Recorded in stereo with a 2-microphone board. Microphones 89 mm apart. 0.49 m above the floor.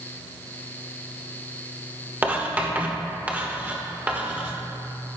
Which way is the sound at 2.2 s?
20° right (ahead or behind).